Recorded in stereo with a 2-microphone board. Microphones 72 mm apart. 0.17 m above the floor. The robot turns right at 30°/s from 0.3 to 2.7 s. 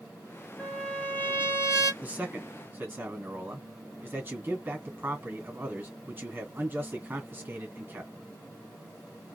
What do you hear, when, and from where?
0.6 s a trumpet: 10° left, 1.1 m; by 1.9 s 50° left, 1.1 m
2.0 s a man speaking: 25° right (ahead or behind), 1.9 m; by 8.1 s 30° right (ahead or behind), 1.9 m